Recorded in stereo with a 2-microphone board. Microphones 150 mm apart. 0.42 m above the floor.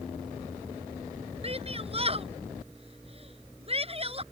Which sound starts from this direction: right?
A shout, at 1.4 s.